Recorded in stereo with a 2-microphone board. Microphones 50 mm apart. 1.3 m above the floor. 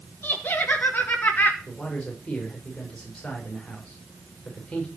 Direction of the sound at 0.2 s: 45° left (ahead or behind).